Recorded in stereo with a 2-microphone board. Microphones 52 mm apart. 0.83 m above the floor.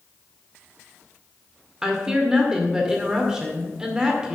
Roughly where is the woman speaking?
Centre.